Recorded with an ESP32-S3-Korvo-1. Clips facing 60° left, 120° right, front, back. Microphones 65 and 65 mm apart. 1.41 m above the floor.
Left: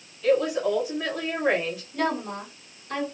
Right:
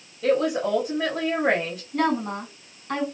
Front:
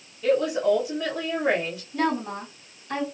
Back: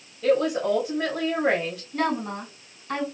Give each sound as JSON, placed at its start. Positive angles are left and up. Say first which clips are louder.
{"t": 0.2, "sound": "a woman speaking", "louder": "even, even", "azimuth_deg": -140, "distance_m": 1.7}
{"t": 1.9, "sound": "a woman speaking", "louder": "right 4 dB, front 1 dB", "azimuth_deg": -140, "distance_m": 1.9}